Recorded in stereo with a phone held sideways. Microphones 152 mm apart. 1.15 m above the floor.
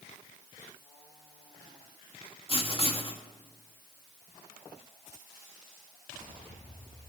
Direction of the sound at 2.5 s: 40° left (ahead or behind).